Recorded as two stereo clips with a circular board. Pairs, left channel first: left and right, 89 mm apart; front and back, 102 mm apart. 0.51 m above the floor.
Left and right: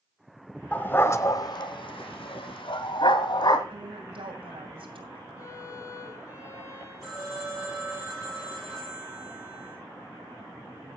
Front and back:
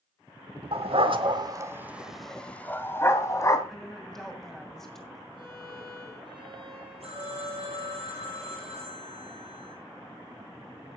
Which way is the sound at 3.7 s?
85° right.